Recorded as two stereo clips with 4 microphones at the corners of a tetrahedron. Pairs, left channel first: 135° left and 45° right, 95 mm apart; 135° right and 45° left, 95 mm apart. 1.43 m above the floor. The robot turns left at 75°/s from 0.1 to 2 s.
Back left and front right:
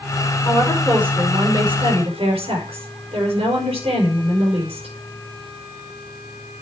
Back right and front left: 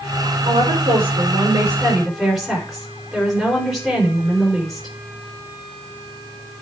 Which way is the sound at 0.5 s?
70° left.